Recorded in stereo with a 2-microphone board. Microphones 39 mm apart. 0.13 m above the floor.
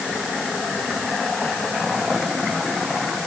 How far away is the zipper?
I don't hear a zipper.